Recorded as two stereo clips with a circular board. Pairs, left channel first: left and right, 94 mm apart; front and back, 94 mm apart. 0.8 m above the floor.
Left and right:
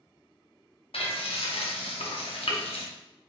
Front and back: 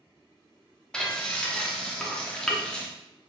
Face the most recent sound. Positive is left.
turn(degrees=80)